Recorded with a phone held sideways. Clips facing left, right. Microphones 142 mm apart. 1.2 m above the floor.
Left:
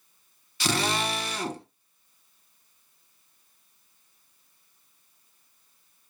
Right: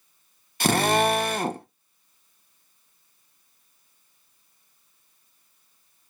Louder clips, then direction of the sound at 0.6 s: Right 7 dB; 50° right (ahead or behind).